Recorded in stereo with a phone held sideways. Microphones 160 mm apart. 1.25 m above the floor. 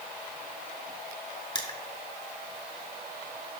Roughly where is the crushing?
Left.